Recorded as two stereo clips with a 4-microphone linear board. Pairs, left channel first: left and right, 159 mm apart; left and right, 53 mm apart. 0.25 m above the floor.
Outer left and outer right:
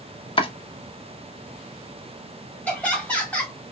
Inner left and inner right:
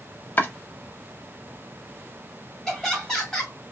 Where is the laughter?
10° left (ahead or behind), 1.5 m.